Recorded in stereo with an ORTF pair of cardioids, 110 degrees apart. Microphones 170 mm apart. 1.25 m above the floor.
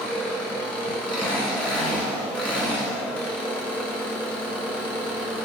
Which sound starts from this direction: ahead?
An engine running, at 0.0 s.